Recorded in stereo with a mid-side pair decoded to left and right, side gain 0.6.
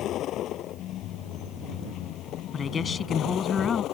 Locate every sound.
0.0 s a vehicle: 55° left; by 3.9 s 60° left
2.5 s a woman speaking: 35° left